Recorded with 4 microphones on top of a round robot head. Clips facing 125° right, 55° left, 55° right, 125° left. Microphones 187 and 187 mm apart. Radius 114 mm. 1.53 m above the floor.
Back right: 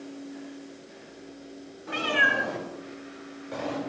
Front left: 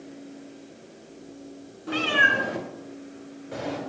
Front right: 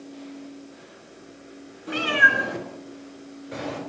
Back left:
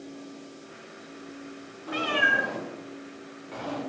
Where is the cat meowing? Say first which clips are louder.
Front left 2 dB, front right 3 dB; straight ahead, 3 m; by 3.8 s 15° right, 4.5 m.